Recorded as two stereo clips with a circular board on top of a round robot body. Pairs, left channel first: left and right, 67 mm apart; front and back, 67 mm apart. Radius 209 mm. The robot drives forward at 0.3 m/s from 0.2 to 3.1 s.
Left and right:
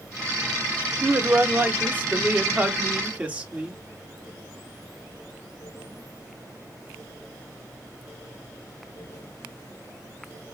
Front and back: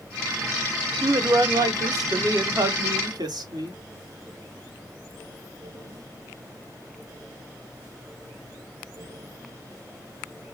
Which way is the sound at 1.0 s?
145° right.